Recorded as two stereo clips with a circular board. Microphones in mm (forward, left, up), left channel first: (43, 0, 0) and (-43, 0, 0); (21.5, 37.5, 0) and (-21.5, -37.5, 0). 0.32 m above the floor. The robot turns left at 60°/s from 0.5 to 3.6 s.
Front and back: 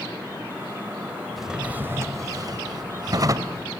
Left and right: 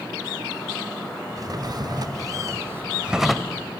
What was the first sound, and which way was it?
A drawer, 90° right.